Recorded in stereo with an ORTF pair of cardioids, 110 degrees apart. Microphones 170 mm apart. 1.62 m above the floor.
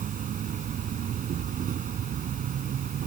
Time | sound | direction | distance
0.0 | an insect | 50° right | ?